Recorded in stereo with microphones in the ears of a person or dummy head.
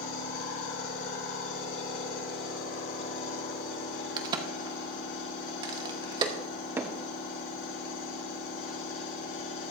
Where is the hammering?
20° right (ahead or behind), 1.0 m.